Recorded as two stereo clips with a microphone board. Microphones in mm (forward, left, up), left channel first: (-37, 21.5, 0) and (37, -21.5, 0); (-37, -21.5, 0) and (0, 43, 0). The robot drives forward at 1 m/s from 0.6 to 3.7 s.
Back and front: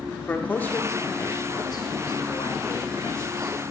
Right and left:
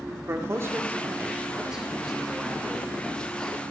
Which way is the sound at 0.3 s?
90° left.